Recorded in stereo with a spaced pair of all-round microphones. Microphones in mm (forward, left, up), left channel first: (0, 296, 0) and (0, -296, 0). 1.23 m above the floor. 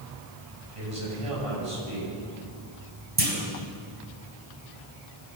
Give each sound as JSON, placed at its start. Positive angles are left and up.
{"t": 0.8, "sound": "a man speaking", "side_deg": -60, "distance_m": 9.0}
{"t": 3.2, "sound": "a clunk", "side_deg": -70, "distance_m": 4.0}